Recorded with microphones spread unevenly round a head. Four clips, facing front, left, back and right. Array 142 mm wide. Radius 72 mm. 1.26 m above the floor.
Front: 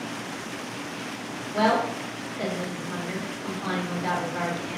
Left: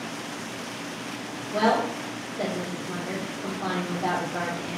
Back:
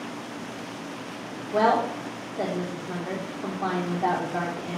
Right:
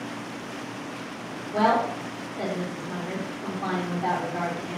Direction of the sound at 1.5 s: Straight behind.